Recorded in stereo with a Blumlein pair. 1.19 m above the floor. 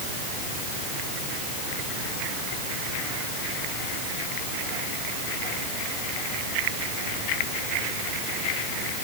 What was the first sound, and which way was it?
Only background noise.